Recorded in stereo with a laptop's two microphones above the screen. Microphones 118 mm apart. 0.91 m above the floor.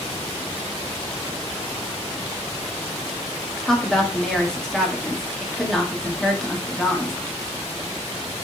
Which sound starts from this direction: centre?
A woman speaking, at 3.6 s.